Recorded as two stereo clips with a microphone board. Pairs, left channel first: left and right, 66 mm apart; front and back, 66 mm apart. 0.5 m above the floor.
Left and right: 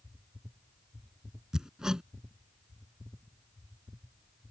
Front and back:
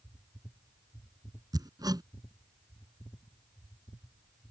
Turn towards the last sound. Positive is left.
turn(degrees=-170)